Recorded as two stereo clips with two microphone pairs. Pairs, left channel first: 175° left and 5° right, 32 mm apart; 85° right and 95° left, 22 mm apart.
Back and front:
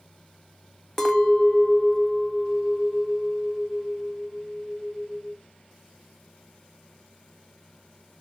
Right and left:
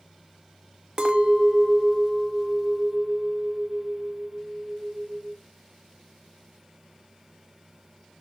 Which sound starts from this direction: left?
A clink, at 1.0 s.